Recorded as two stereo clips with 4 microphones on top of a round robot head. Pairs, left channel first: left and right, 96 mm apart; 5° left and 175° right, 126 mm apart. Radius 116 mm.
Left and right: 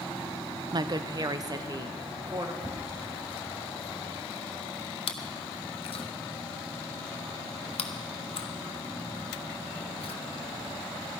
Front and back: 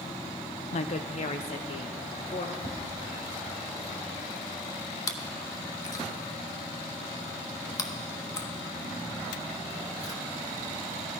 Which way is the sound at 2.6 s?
45° right.